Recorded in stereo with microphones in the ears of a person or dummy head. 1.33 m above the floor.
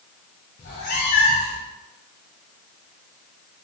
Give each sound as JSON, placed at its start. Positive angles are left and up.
{"t": 0.6, "sound": "a cat meowing", "side_deg": 30, "distance_m": 0.5}